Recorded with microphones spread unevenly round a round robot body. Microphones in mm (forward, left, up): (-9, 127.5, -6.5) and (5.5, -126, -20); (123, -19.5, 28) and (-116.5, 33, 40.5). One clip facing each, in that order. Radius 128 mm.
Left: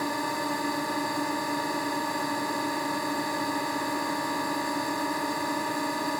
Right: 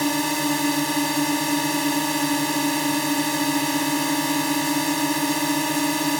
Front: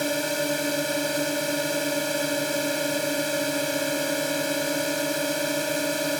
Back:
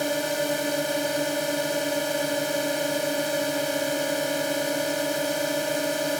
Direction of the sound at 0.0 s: 95° right.